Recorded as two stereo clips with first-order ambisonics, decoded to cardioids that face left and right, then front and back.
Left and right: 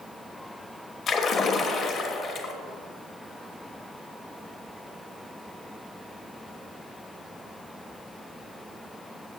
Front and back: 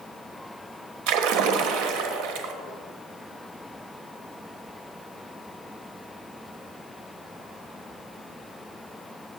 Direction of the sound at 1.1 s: 160° left.